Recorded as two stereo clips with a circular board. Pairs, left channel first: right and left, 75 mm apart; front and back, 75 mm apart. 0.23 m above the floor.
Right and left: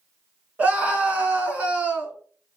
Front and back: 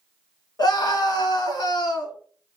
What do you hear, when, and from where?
0.6 s a scream: 20° left, 2.0 m